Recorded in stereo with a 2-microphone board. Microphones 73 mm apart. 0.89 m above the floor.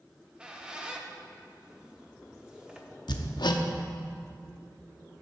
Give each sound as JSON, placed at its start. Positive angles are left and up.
{"t": 0.1, "sound": "a squeak", "side_deg": -10, "distance_m": 0.8}
{"t": 3.1, "sound": "hammering", "side_deg": 80, "distance_m": 0.6}